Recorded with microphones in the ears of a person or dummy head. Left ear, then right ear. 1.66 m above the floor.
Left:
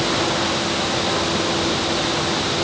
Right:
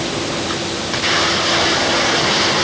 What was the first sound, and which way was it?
Only background noise.